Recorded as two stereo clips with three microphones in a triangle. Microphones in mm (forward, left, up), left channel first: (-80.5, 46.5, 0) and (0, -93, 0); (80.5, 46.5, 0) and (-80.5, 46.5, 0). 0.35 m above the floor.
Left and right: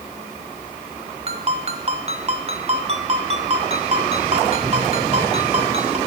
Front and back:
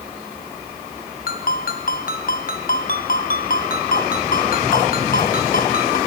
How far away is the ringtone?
About 1.6 m.